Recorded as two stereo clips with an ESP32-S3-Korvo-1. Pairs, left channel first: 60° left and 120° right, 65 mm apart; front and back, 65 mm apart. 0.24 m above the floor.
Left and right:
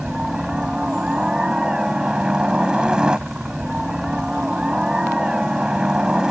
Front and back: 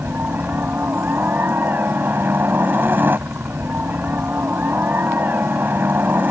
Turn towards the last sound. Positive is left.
turn(degrees=175)